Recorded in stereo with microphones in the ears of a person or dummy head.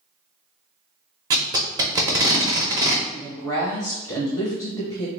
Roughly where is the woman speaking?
Centre.